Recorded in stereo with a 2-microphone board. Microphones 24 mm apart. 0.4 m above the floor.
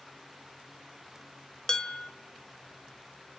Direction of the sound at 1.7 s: 25° left (ahead or behind).